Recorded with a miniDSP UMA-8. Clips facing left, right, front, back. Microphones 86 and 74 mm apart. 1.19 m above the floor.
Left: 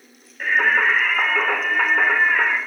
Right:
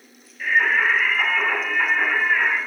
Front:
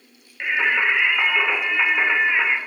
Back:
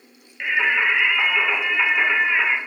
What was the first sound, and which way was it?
Singing, 80° left.